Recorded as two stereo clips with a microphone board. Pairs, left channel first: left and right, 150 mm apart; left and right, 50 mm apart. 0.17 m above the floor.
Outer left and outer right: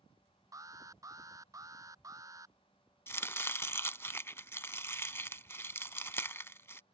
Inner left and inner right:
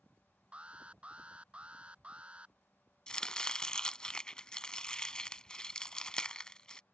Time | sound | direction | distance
0.5 | an alarm | 20° right (ahead or behind) | ?
3.1 | chopping | 15° left (ahead or behind) | ?